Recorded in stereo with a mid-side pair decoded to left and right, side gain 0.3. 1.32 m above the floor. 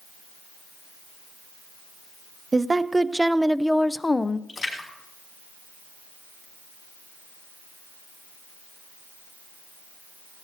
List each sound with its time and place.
2.5 s a woman speaking: 35° right, 1.0 m; by 4.4 s 45° left, 0.7 m
4.5 s a splash: 45° left, 5.5 m